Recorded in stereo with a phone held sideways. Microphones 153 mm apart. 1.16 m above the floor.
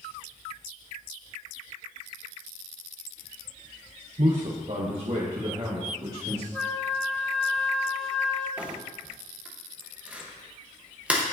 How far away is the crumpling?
About 0.9 m.